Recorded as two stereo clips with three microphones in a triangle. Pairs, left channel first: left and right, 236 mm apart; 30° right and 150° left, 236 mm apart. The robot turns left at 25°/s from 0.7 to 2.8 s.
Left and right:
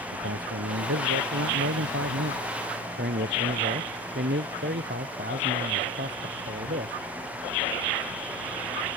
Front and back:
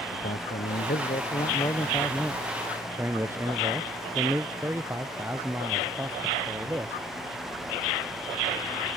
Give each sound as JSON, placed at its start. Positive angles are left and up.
{"t": 0.1, "sound": "a man speaking", "azimuth_deg": -80}